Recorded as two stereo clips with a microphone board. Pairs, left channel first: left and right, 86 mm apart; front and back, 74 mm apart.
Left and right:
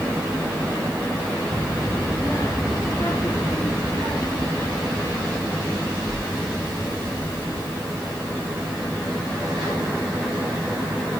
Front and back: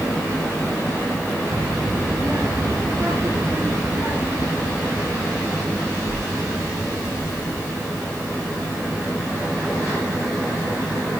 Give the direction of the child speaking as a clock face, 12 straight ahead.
7 o'clock.